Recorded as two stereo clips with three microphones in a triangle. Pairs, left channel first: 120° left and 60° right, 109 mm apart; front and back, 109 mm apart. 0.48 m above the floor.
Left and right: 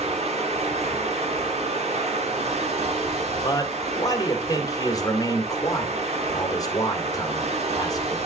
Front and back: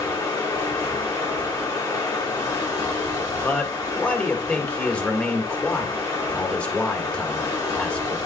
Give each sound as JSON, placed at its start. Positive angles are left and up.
{"t": 0.0, "sound": "running water", "azimuth_deg": -55, "distance_m": 4.0}
{"t": 3.4, "sound": "a man speaking", "azimuth_deg": 75, "distance_m": 1.9}